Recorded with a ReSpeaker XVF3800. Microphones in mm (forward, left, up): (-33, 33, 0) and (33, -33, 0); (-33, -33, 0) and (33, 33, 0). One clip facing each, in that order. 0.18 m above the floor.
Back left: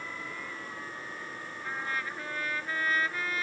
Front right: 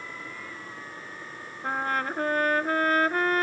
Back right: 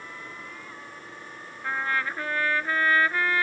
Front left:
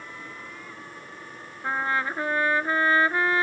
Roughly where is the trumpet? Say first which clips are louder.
Front right 8 dB, front left 2 dB; ahead.